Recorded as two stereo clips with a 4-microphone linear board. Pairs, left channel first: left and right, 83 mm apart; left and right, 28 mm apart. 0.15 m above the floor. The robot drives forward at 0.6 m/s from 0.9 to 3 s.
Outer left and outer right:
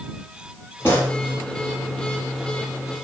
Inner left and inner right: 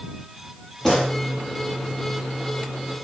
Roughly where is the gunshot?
Left.